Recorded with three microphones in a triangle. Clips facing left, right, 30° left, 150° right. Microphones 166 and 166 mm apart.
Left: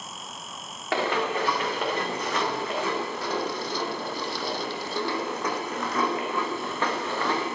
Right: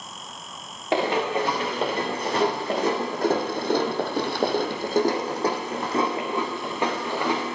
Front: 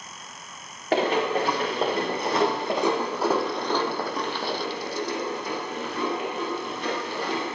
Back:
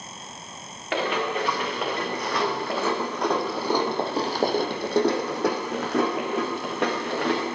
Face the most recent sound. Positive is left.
turn(degrees=-165)